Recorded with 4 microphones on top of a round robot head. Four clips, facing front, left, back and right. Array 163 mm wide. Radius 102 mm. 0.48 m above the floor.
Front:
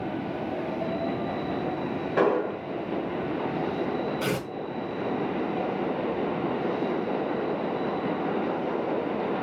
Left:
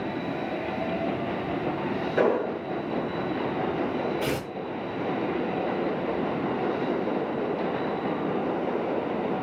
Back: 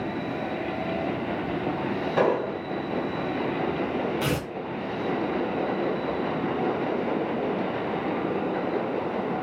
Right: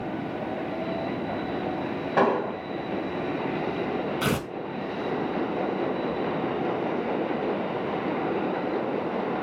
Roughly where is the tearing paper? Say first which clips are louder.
Right 1 dB, back 1 dB; right.